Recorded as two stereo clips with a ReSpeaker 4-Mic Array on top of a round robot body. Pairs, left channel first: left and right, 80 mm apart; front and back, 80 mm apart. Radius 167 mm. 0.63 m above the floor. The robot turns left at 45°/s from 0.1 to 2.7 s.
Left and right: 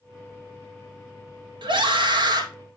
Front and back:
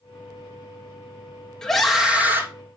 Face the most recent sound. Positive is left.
turn(degrees=-130)